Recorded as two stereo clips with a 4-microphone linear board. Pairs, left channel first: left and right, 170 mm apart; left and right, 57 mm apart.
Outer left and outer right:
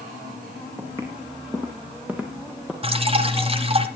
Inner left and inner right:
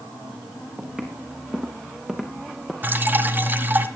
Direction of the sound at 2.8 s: 35° right (ahead or behind).